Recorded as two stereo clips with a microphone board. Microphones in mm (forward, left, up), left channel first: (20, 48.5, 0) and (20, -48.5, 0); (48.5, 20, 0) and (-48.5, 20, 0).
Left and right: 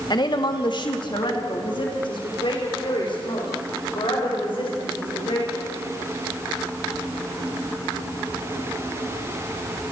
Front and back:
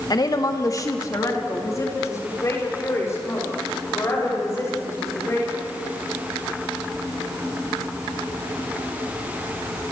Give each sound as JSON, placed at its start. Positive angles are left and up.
{"t": 0.1, "sound": "a woman speaking", "azimuth_deg": 45, "distance_m": 1.8}